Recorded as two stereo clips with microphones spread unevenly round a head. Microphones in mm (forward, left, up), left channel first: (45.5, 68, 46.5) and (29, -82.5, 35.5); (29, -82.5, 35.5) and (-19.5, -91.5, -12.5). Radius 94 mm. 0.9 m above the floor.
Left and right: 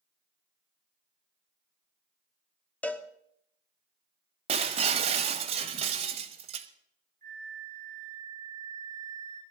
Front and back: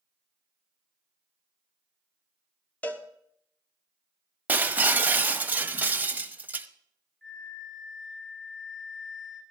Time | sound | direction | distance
2.8 | a cowbell | 160° left | 0.8 m
4.5 | breaking glass | 60° right | 0.8 m
7.2 | a flute | 70° right | 5.5 m